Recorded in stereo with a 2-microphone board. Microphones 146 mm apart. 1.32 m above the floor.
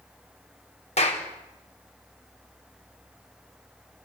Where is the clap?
50° left (ahead or behind), 4 m.